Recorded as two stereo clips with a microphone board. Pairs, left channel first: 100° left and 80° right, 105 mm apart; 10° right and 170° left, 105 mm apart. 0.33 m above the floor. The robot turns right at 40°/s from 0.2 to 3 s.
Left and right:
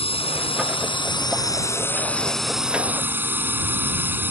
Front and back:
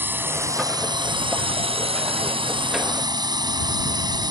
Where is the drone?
100° left; by 4.3 s 150° right.